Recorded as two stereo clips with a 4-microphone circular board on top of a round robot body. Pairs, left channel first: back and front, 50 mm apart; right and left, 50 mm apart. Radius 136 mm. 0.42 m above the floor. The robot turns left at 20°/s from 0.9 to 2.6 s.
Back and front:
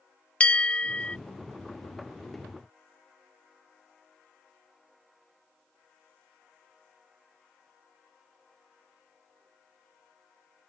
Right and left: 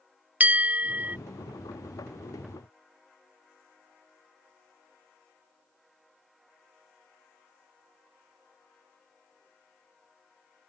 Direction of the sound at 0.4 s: 125° left.